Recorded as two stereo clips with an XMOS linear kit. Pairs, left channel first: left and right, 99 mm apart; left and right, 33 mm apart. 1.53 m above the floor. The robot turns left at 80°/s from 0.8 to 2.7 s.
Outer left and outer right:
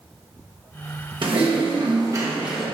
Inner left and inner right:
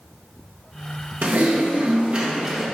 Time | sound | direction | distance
1.2 | typing on a keyboard | 70° right | 1.3 m